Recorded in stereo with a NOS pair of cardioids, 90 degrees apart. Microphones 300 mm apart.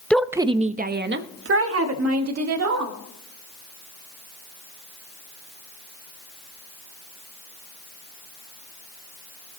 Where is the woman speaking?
5° left, 0.7 m; by 3.0 s 65° right, 2.5 m.